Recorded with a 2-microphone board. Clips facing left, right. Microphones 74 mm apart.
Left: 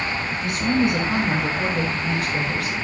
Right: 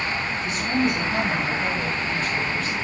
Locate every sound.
0.3 s a woman speaking: 60° left (ahead or behind), 6 m; by 2.8 s 80° left, 6 m